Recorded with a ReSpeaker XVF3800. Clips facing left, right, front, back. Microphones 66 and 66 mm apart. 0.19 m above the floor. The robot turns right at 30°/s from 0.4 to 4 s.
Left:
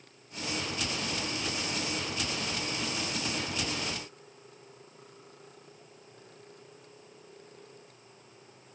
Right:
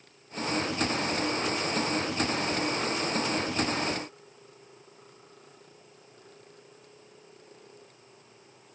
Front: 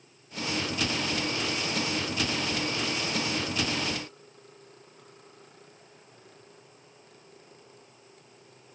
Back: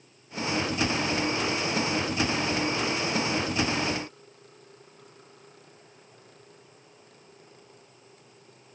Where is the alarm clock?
No alarm clock in this recording.